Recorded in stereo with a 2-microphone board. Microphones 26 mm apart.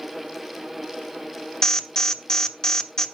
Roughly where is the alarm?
Left.